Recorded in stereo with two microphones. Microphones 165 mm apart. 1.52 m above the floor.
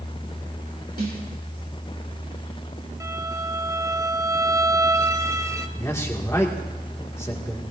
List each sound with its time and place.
1.0 s a snare drum: 75° right (ahead or behind), 4.5 m
3.0 s a violin: 20° right (ahead or behind), 0.7 m
5.8 s a man speaking: 20° left (ahead or behind), 1.9 m